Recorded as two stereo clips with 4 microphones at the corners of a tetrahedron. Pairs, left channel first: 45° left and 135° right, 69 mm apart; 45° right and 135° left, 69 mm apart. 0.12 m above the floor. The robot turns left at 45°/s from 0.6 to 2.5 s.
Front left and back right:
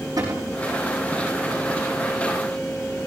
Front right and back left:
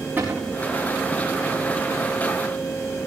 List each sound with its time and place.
0.2 s a cupboard door: 165° right, 6.5 m